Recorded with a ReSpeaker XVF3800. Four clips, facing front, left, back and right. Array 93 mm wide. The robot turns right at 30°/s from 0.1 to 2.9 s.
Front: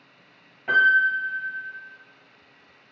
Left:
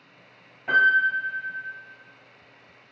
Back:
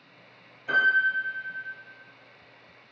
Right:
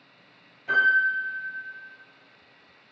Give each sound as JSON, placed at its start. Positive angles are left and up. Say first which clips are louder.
{"t": 0.7, "sound": "a piano", "louder": "left 2 dB, front 4 dB", "azimuth_deg": 35, "distance_m": 1.4}